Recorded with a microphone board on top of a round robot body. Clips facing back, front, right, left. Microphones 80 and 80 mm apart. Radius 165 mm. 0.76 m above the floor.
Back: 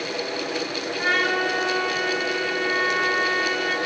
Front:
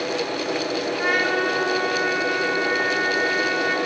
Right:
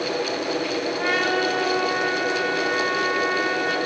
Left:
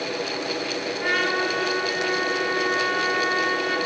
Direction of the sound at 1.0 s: 80° right.